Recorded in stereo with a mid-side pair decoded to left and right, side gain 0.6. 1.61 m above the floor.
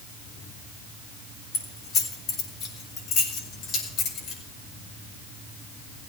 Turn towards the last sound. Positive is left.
turn(degrees=65)